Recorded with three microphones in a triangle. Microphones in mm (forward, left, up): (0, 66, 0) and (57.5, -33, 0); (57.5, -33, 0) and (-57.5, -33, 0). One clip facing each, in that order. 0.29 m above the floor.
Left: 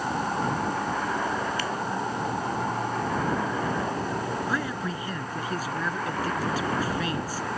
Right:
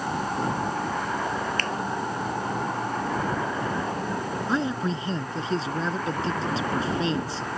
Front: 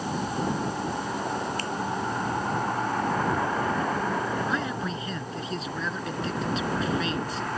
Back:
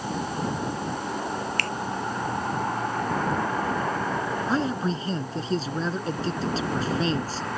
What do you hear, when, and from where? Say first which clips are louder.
1.6 s a finger snap: even, back 1 dB; 160° right
4.5 s a man speaking: right 4 dB, back 4 dB; 125° right